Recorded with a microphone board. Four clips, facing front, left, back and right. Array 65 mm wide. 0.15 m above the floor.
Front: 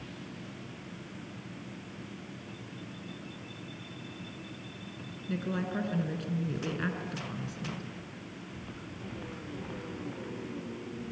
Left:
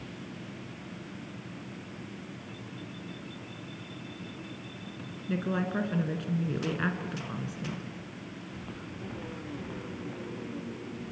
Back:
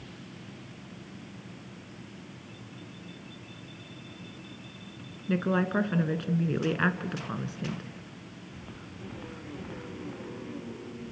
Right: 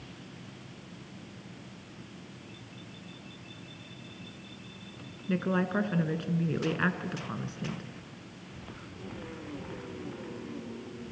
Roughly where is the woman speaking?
Behind.